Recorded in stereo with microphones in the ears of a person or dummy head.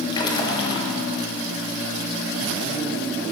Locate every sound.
0.1 s a splash: 25° left (ahead or behind), 1.3 m